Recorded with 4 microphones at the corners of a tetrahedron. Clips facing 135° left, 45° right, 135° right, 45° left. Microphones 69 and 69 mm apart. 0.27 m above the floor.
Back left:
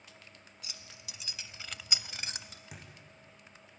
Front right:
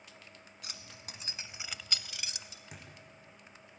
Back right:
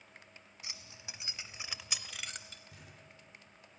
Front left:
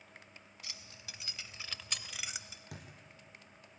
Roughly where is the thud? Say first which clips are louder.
Even, front left 6 dB; ahead left.